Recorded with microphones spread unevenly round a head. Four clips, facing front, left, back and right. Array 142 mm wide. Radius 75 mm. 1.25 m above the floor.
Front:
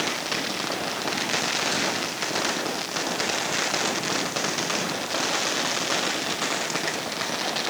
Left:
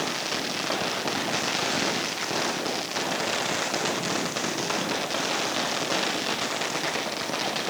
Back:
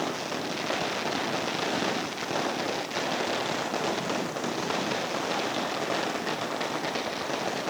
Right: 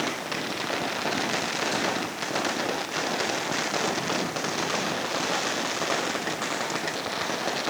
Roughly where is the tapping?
I don't hear tapping.